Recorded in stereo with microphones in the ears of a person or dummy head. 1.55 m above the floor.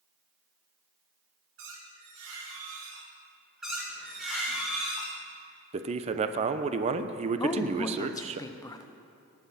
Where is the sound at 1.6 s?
75° right (ahead or behind), 2 m.